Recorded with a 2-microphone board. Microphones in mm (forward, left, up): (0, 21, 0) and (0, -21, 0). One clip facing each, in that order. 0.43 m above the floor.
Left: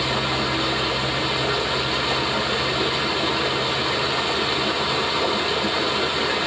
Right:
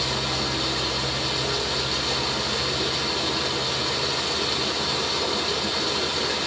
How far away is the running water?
About 4.5 m.